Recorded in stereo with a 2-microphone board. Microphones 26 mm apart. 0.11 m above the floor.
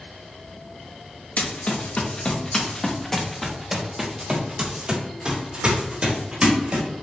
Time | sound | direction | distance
1.4 | running footsteps | 65° left (ahead or behind) | 1.2 m